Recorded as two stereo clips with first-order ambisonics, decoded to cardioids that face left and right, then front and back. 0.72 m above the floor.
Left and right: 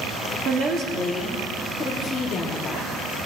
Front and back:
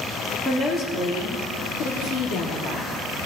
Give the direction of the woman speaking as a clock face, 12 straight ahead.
2 o'clock.